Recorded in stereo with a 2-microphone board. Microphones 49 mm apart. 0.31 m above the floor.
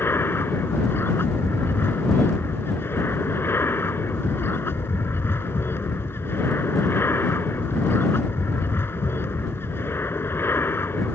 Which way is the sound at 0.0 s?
55° left (ahead or behind).